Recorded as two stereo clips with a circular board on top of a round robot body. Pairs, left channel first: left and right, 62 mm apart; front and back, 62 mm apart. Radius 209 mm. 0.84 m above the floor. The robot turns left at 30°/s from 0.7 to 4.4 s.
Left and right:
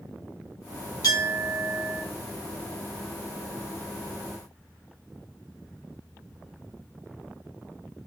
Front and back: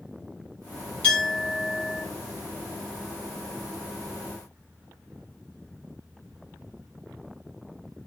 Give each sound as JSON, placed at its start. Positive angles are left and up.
{"t": 1.0, "sound": "a clink", "azimuth_deg": 65, "distance_m": 5.5}